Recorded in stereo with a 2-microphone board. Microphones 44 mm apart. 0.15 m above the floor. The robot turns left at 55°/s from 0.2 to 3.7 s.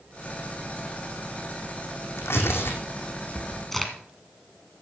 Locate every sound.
2.2 s tearing paper: 85° left, 2 m; by 3.6 s 10° left (ahead or behind), 2 m
3.7 s a crack: 10° left (ahead or behind), 1.6 m